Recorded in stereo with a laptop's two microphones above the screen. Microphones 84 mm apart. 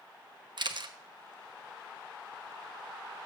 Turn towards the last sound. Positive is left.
turn(degrees=-60)  # may be behind; listen again after turning